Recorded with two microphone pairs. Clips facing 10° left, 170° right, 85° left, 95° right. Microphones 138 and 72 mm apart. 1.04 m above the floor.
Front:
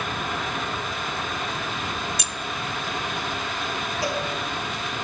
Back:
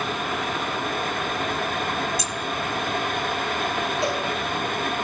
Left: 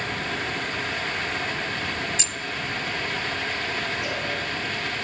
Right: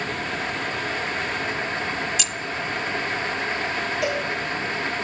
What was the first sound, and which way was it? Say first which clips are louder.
Keys jangling: back 4 dB, right 3 dB; 25° left.